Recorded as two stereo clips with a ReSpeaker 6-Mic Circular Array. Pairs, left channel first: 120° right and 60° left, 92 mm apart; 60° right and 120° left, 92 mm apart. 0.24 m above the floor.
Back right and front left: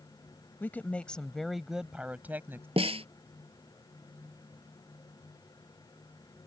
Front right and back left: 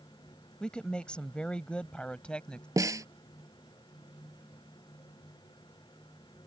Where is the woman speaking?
120° right; by 2.7 s 15° left.